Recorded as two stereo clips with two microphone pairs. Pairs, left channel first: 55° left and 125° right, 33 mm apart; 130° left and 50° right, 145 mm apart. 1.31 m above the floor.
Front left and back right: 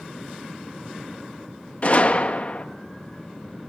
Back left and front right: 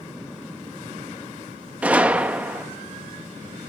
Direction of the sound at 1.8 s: 30° left.